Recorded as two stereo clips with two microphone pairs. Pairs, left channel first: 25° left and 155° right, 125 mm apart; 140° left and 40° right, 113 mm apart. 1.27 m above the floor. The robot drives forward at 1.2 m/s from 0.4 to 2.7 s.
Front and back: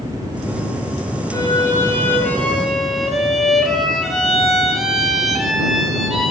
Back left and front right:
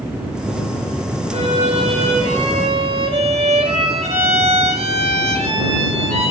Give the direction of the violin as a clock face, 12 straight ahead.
1 o'clock.